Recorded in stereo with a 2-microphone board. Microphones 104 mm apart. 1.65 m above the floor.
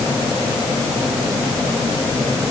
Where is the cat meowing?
No cat meowing in this recording.